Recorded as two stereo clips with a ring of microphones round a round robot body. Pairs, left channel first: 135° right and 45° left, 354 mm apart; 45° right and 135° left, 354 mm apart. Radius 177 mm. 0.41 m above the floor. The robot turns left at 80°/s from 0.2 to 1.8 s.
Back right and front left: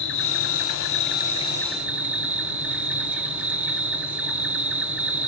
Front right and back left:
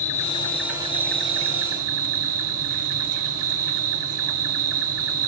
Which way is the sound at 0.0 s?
100° right.